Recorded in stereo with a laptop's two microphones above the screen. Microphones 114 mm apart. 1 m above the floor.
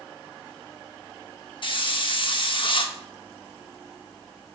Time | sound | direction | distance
1.6 | a hiss | 50° left (ahead or behind) | 0.8 m